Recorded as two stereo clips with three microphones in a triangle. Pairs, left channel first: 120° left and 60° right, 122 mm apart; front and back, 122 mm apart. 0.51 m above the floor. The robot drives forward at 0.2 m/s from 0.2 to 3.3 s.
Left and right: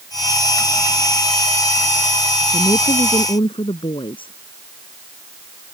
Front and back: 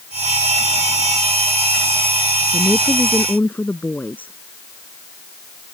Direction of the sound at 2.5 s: 75° left.